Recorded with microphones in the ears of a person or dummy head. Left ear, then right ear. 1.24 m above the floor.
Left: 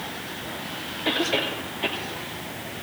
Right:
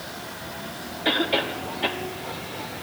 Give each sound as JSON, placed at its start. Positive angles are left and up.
{"t": 1.1, "sound": "a cough", "side_deg": -20, "distance_m": 2.0}